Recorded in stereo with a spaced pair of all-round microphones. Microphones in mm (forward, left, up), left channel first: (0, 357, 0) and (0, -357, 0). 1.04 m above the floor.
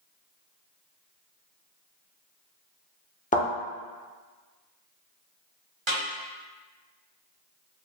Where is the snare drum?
40° right (ahead or behind), 1.1 m.